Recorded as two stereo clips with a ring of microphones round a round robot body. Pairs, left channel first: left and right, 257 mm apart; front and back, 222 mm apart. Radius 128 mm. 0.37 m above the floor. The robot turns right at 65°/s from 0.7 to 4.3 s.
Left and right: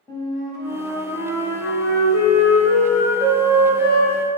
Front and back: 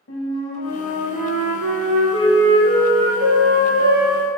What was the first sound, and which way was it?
A flute, 15° left.